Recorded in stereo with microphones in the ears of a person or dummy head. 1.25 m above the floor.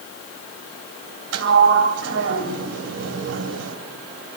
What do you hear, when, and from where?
1.3 s a sliding door: 75° right (ahead or behind), 3 m